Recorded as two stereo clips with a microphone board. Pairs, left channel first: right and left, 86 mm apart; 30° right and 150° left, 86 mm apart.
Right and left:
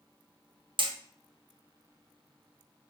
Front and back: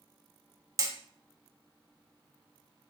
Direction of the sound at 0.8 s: 105° left.